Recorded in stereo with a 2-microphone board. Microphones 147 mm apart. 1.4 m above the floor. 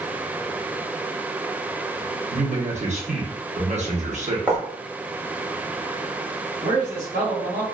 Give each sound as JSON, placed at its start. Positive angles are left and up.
{"t": 2.3, "sound": "a man speaking", "side_deg": -55, "distance_m": 0.9}
{"t": 4.5, "sound": "writing", "side_deg": -10, "distance_m": 1.1}
{"t": 6.6, "sound": "a man speaking", "side_deg": -65, "distance_m": 1.8}